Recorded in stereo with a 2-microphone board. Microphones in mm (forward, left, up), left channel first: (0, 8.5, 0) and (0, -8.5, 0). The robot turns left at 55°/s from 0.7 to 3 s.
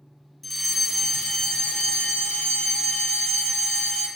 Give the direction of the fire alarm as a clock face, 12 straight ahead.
6 o'clock.